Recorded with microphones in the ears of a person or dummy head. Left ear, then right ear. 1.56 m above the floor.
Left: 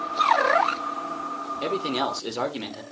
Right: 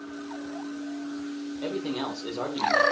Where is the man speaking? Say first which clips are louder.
Left 5 dB; 75° left (ahead or behind), 1.6 m.